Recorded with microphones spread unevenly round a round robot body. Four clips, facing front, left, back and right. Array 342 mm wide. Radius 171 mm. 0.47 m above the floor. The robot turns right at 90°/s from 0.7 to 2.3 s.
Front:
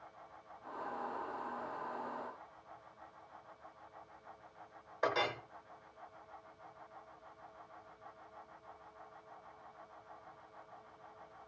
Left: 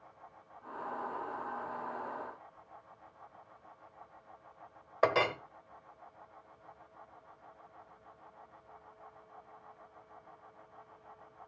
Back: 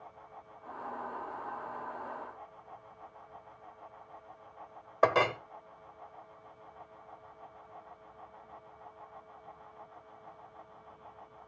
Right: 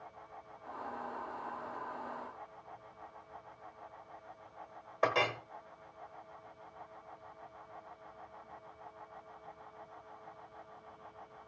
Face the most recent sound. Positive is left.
turn(degrees=170)